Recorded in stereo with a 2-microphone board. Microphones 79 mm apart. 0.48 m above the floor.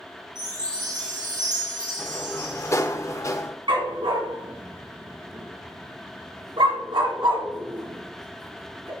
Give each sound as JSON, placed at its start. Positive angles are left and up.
{"t": 0.3, "sound": "a chime", "side_deg": -60, "distance_m": 3.0}
{"t": 2.0, "sound": "a sliding door", "side_deg": 40, "distance_m": 0.7}
{"t": 3.7, "sound": "a dog barking", "side_deg": -85, "distance_m": 1.7}